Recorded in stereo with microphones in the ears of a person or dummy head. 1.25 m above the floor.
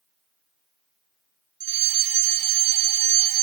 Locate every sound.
1.6 s a fire alarm: 60° right (ahead or behind), 3.5 m